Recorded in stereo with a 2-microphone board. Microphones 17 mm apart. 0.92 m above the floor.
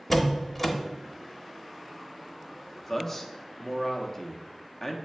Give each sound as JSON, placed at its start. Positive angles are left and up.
{"t": 0.1, "sound": "a door slam", "side_deg": 10, "distance_m": 0.8}
{"t": 2.8, "sound": "a man speaking", "side_deg": 25, "distance_m": 0.8}